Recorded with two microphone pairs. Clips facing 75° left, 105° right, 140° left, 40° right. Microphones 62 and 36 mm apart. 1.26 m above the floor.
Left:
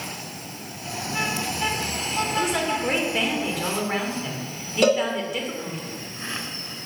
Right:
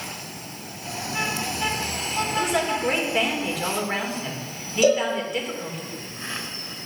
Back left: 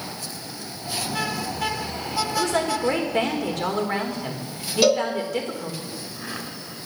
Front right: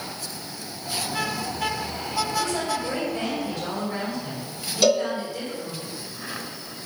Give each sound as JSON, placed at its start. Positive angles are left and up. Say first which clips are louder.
{"t": 2.4, "sound": "a woman speaking", "louder": "right 2 dB, back left 3 dB", "azimuth_deg": 165, "distance_m": 3.5}
{"t": 4.8, "sound": "a cowbell", "louder": "even, back left 1 dB", "azimuth_deg": 65, "distance_m": 2.0}